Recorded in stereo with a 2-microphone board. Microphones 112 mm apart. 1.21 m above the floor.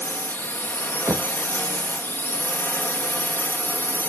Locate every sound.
0.0 s a drone: 20° left (ahead or behind)
1.1 s knocking: 20° right (ahead or behind)